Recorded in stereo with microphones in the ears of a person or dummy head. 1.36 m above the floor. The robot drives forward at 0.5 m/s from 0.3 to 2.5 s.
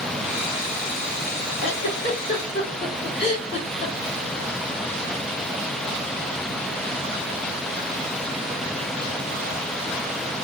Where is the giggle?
65° left (ahead or behind), 1.9 m; by 3.9 s 55° left (ahead or behind), 2 m.